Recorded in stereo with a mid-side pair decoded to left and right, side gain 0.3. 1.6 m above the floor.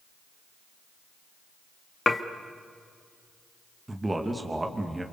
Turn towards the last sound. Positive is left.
turn(degrees=-25)